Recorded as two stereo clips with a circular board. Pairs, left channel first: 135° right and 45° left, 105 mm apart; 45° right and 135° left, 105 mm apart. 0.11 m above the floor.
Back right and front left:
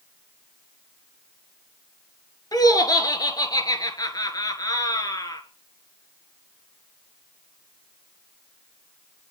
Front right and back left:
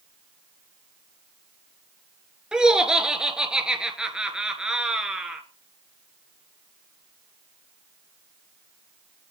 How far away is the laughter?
About 1.4 m.